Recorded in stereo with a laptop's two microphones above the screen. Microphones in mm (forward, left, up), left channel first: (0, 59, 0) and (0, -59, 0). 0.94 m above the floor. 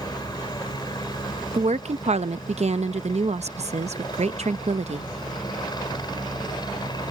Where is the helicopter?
35° left (ahead or behind).